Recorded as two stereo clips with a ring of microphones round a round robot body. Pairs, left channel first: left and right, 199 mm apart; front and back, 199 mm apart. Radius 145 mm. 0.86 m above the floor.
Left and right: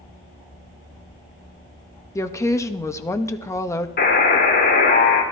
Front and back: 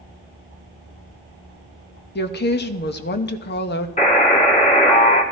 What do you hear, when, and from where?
2.1 s a woman speaking: 15° left, 1.2 m
4.0 s a buzzer: 55° left, 3.5 m